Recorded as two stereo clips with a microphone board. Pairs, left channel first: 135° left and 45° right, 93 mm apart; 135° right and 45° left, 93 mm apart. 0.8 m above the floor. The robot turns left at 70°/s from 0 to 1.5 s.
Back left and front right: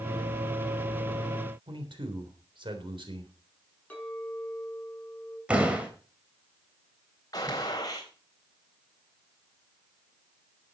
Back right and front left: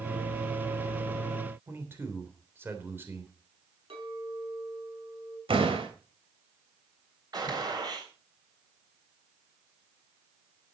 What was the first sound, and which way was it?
A man speaking, 20° right.